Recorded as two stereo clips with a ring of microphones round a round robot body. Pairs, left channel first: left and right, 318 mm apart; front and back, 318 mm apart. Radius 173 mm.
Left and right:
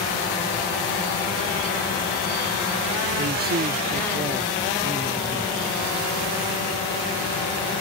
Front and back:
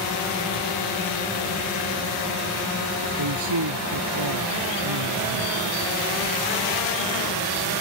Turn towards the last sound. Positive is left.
turn(degrees=-175)